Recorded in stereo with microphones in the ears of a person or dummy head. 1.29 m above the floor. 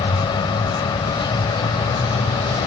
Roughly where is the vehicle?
Left.